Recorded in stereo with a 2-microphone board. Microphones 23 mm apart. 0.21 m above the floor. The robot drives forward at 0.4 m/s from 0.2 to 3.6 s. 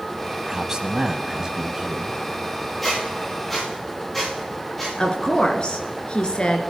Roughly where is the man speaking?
Right.